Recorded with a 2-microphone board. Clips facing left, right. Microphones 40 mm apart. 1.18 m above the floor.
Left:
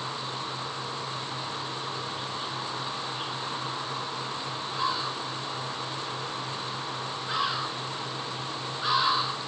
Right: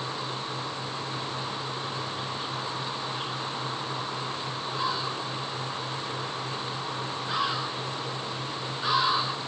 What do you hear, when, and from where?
Only background noise.